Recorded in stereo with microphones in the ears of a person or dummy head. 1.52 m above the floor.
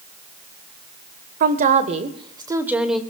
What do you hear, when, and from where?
1.4 s a woman speaking: 45° right (ahead or behind), 1.3 m; by 3.0 s 5° left (ahead or behind), 1.2 m